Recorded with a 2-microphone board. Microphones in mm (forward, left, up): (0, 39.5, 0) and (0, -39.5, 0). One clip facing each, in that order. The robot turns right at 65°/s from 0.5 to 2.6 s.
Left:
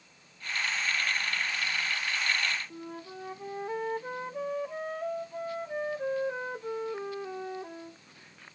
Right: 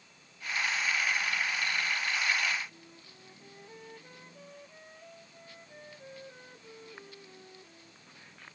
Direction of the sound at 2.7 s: 75° left (ahead or behind).